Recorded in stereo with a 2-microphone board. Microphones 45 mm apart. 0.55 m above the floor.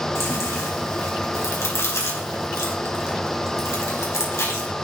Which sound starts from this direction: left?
Chewing, at 0.1 s.